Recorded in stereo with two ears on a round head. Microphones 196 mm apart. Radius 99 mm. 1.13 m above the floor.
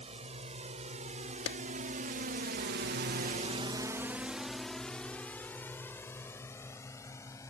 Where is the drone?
30° right (ahead or behind); by 7.5 s 15° left (ahead or behind).